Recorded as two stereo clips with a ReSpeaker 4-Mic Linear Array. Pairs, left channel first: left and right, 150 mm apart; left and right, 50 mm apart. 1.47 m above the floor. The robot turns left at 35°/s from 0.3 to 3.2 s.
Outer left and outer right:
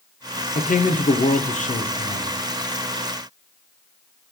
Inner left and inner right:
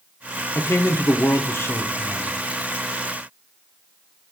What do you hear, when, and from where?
0.6 s a man speaking: 105° left, 0.5 m; by 2.4 s 40° left, 0.5 m